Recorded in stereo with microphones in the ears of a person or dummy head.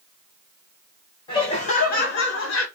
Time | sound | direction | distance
1.3 | laughter | 25° left (ahead or behind) | 0.9 m